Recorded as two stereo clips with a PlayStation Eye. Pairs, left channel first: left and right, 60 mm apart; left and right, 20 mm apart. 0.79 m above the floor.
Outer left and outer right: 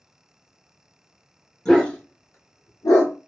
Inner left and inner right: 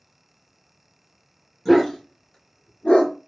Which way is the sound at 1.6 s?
15° left (ahead or behind).